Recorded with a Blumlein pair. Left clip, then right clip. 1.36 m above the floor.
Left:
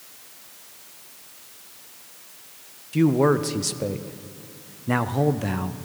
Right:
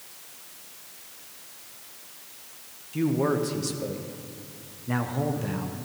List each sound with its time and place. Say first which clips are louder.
2.9 s a man speaking: left 6 dB; 20° left, 0.7 m